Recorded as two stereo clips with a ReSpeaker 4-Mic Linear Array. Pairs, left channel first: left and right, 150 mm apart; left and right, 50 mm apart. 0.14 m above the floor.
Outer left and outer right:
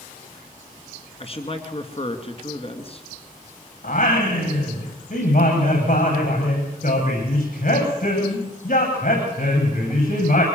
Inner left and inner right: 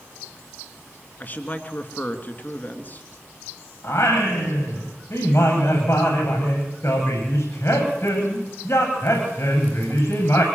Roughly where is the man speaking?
Left.